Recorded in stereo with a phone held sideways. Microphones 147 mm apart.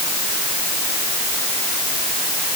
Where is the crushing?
I don't hear crushing.